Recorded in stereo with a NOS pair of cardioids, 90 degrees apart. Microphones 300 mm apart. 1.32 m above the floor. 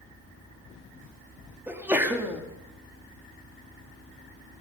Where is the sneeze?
5° right, 2.5 m.